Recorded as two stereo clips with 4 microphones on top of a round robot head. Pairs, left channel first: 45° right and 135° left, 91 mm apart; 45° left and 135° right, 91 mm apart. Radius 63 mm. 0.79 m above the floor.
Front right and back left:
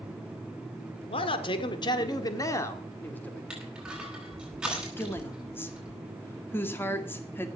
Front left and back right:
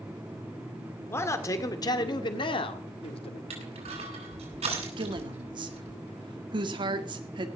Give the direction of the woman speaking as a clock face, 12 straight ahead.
4 o'clock.